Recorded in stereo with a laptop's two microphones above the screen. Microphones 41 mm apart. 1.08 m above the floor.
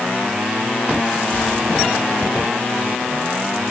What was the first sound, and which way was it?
Only background noise.